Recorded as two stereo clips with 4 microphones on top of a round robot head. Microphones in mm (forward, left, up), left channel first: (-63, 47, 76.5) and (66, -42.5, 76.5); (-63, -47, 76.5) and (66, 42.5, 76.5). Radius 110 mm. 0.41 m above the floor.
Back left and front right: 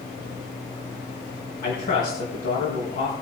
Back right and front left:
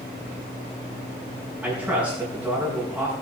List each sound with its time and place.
1.6 s a man speaking: 115° left, 4.5 m